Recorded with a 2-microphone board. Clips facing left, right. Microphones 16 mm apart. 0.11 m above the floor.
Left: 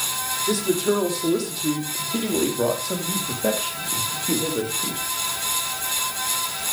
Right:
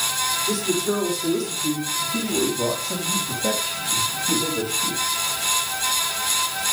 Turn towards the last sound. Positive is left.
turn(degrees=65)  # may be behind; listen again after turning